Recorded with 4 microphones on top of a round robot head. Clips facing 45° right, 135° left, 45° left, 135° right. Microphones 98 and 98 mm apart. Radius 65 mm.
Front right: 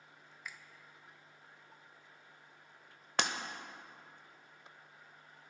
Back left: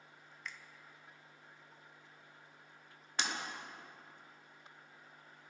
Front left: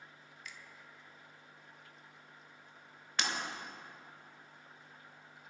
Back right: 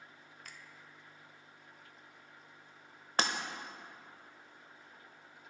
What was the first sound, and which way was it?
A finger snap, 125° right.